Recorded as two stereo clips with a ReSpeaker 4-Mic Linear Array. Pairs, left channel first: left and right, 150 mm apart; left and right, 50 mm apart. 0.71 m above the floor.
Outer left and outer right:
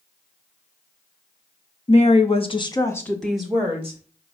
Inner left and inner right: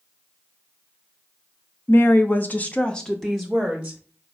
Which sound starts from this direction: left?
A woman speaking, at 1.9 s.